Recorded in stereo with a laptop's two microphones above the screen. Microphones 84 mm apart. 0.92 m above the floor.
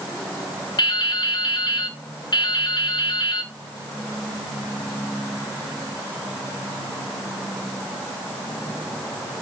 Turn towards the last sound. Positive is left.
turn(degrees=55)  # may be behind; listen again after turning